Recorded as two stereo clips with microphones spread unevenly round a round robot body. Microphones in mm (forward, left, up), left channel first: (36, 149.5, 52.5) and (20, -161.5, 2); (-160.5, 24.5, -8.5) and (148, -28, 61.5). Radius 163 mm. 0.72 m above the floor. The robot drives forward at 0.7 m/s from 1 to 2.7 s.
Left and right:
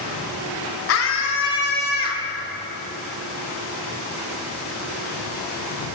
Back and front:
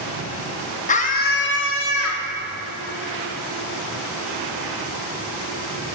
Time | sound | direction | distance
0.9 | a scream | 130° left | 1.3 m